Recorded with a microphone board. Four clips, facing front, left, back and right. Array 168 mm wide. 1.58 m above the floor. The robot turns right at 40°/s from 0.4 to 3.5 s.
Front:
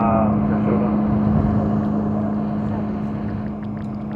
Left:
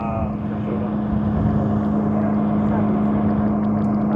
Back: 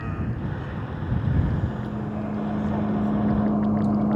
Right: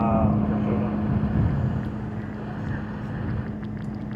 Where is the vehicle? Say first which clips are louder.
Right 2 dB, front 15 dB; 5° right; by 4.2 s 115° left.